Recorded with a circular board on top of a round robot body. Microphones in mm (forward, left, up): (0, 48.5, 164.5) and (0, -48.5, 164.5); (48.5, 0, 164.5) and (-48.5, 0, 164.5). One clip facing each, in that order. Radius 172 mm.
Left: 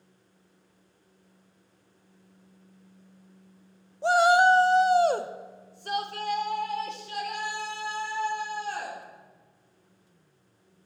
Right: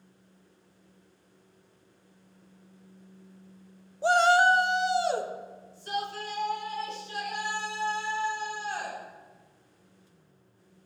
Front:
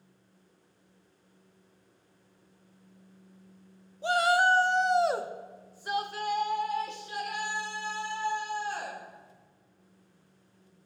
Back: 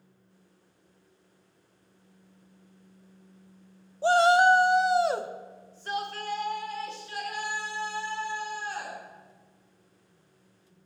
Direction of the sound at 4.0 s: 175° right.